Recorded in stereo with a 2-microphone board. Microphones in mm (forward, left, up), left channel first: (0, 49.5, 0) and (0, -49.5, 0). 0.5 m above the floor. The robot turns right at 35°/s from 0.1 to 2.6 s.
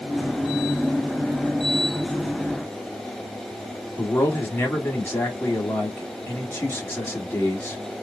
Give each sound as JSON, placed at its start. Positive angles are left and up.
{"t": 4.0, "sound": "a man speaking", "side_deg": 25, "distance_m": 1.4}